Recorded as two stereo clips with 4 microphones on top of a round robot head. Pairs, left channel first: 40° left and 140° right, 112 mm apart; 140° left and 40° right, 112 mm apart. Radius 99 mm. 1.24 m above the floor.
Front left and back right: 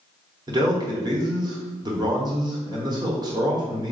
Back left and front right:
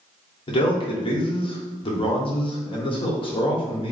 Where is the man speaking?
175° left, 1.1 m.